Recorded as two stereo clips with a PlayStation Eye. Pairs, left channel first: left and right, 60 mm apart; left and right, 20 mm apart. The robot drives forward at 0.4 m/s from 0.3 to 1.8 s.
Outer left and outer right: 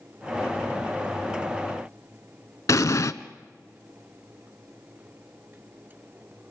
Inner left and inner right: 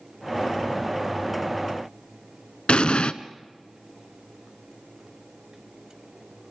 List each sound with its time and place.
2.7 s an explosion: 60° left (ahead or behind), 0.7 m